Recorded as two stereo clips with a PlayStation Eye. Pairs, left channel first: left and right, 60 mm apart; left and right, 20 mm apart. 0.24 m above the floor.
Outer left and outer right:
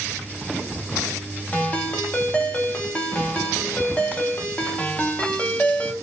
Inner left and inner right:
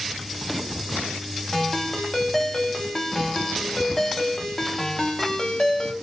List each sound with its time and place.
1.5 s a ringtone: 20° left (ahead or behind), 0.8 m